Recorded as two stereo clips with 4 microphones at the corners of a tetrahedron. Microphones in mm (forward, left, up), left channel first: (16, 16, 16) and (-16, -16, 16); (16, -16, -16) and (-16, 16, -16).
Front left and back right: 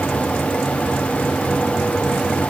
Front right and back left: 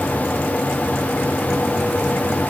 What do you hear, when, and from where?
Only background noise.